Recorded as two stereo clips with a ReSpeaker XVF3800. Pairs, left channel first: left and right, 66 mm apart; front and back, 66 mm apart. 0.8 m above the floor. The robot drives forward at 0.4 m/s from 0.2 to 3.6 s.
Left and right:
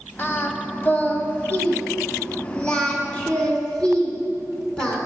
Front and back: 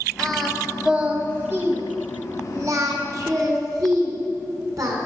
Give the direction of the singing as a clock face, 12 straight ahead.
9 o'clock.